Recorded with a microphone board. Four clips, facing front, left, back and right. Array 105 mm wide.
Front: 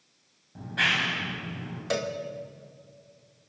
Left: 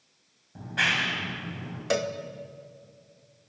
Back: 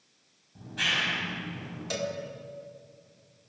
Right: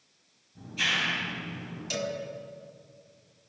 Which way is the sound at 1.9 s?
65° left.